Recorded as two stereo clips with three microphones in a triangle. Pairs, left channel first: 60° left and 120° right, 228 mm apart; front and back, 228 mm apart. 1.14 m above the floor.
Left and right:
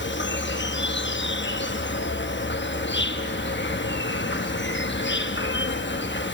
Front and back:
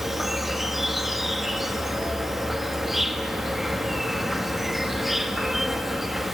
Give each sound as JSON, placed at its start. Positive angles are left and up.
{"t": 0.0, "sound": "an insect", "azimuth_deg": 90, "distance_m": 1.0}